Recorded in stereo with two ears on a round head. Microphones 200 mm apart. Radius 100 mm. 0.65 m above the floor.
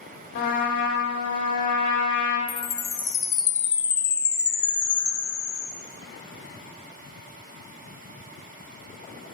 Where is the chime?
20° left (ahead or behind), 0.7 m.